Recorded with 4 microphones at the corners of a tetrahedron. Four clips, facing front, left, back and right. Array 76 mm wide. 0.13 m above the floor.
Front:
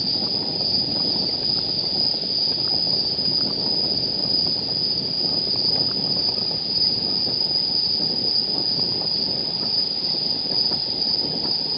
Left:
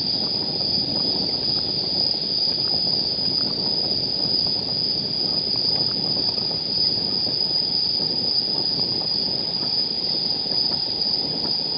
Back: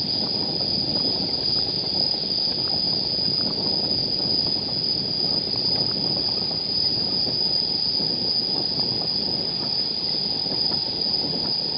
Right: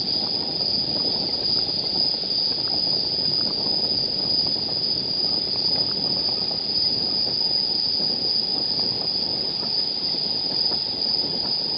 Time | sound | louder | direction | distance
0.0 | an insect | left 1 dB, even | 140° left | 5.5 m